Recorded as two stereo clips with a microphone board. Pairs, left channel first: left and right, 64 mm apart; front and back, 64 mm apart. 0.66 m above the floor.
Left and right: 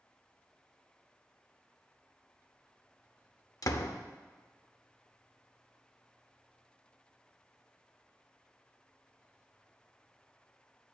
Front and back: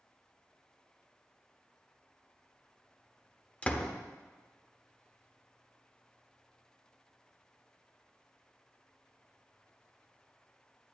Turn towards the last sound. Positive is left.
turn(degrees=70)